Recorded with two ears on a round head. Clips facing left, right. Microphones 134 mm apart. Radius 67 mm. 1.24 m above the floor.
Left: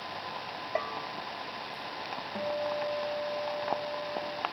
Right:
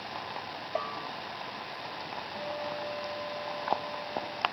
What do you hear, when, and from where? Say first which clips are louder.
0.8 s a bell: left 1 dB; 10° left (ahead or behind)
2.4 s a guitar: left 5 dB; 35° left (ahead or behind)